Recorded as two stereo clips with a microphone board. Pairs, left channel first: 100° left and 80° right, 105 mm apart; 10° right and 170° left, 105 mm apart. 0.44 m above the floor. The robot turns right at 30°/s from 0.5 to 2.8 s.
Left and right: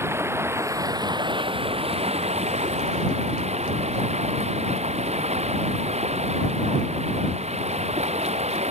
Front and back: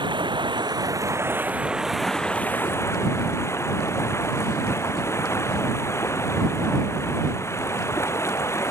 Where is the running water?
145° right; by 8.7 s 75° right.